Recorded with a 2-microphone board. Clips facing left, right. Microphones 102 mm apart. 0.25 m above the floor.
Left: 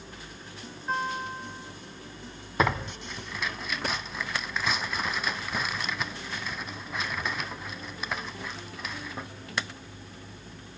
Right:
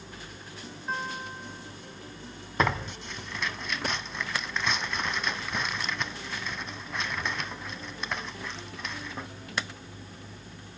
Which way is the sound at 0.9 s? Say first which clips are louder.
Left 4 dB; centre (ahead or behind).